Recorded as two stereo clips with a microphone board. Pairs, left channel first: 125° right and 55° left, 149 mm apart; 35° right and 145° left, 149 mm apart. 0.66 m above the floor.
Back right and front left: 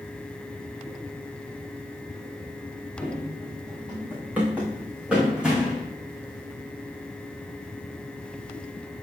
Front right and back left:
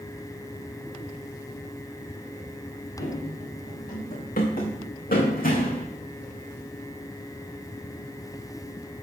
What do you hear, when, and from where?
3.0 s running footsteps: 20° right, 4.5 m; by 5.9 s 30° right, 2.0 m